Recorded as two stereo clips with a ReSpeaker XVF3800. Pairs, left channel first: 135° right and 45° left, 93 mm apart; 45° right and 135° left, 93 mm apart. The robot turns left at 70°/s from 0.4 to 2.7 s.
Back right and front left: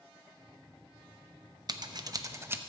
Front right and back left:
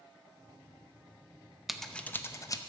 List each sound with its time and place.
1.7 s scissors: 50° left, 0.6 m; by 2.6 s 15° right, 0.6 m